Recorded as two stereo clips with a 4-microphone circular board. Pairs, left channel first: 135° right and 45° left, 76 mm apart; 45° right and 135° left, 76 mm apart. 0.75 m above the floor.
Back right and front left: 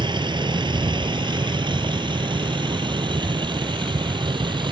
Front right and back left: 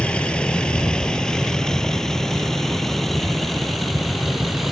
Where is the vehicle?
30° left; by 4.7 s 45° left.